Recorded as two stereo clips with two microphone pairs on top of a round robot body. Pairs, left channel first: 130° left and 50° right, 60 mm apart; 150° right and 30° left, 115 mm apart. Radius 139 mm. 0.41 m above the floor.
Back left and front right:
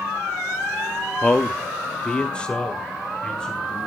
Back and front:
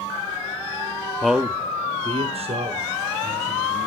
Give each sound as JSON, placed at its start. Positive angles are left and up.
{"t": 1.2, "sound": "a man speaking", "azimuth_deg": 155, "distance_m": 1.0}